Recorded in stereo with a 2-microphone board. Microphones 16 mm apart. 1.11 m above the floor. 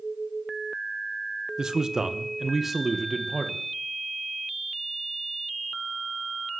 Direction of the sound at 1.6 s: 45° right (ahead or behind).